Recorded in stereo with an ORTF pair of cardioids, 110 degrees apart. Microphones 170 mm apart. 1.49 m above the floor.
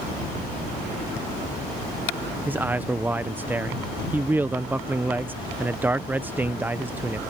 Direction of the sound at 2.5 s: 10° right.